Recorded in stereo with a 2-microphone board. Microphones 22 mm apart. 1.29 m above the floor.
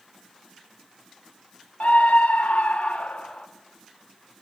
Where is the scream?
75° left (ahead or behind), 0.9 m; by 3.5 s 70° left (ahead or behind), 2 m.